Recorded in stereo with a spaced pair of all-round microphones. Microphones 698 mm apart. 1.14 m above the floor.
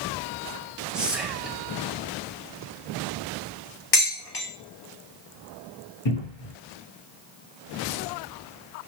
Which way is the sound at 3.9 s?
40° left (ahead or behind).